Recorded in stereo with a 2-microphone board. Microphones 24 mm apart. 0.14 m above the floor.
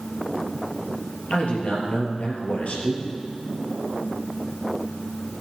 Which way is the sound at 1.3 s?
60° left (ahead or behind).